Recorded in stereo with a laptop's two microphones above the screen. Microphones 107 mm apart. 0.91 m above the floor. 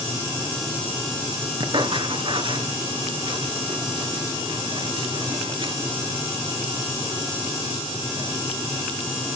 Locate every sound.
1.6 s writing: 50° right (ahead or behind), 3.5 m